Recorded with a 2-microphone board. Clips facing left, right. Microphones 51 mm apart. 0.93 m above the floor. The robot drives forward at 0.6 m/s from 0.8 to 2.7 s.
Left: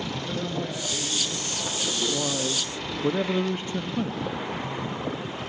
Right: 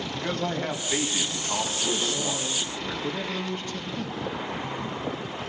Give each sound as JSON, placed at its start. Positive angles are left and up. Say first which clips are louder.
{"t": 0.1, "sound": "a man speaking", "louder": "right 5 dB", "side_deg": -50, "distance_m": 6.5}
{"t": 2.1, "sound": "a man speaking", "louder": "left 2 dB", "side_deg": 20, "distance_m": 1.7}